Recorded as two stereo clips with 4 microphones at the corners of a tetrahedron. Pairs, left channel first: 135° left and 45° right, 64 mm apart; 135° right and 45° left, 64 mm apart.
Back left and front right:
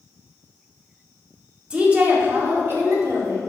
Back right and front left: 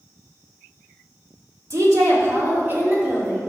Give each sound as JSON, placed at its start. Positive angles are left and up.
{"t": 1.7, "sound": "a woman speaking", "azimuth_deg": 30, "distance_m": 1.8}